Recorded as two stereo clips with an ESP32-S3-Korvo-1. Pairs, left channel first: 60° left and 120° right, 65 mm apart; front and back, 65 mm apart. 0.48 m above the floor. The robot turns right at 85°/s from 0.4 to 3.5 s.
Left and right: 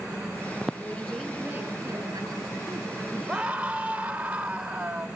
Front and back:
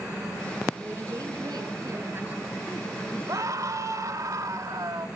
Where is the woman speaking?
120° left, 9.5 m; by 3.6 s 10° right, 9.5 m.